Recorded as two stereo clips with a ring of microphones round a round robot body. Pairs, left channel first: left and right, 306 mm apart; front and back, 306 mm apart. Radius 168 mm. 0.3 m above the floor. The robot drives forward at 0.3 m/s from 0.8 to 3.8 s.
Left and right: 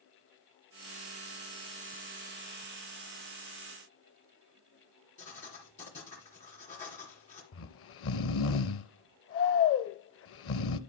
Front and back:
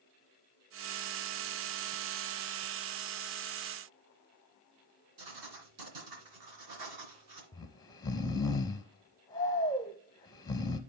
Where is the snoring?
75° left, 0.5 m.